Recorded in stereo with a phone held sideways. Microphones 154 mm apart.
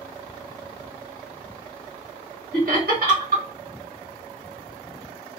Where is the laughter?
75° right (ahead or behind), 1.2 m.